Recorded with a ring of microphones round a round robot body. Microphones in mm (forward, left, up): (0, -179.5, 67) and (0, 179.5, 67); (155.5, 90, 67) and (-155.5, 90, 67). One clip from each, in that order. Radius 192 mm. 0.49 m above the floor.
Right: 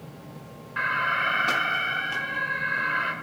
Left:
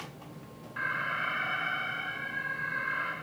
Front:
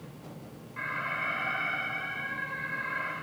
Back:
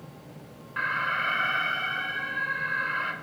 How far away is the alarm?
About 4 m.